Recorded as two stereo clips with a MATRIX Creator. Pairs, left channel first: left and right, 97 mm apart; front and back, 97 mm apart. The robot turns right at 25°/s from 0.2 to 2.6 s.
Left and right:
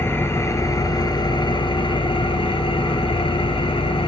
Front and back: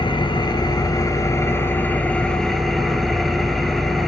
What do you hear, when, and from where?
0.0 s an engine running: 25° left, 1.1 m; by 4.1 s 85° left, 1.1 m